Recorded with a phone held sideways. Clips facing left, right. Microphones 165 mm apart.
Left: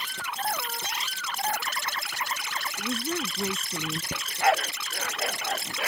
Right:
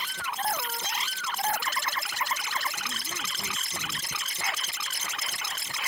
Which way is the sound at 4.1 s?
70° left (ahead or behind).